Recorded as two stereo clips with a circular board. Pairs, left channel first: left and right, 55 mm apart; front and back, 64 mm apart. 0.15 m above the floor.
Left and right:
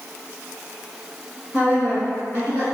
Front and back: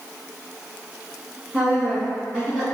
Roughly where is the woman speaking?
Behind right.